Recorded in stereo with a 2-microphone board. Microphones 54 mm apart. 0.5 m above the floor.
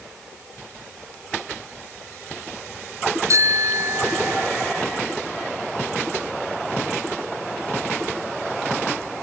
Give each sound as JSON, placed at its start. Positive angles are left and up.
{"t": 3.3, "sound": "a bicycle bell", "side_deg": -65}